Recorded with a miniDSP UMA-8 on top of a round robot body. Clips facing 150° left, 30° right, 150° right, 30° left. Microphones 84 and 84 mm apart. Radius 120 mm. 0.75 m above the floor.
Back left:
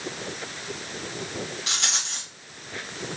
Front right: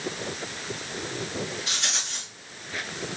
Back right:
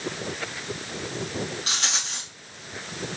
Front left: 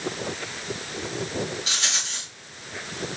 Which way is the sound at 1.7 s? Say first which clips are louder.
Back left 1 dB, even; 170° left.